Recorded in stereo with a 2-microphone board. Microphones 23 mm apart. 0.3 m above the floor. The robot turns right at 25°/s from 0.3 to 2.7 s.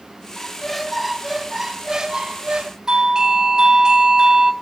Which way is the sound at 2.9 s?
30° right (ahead or behind).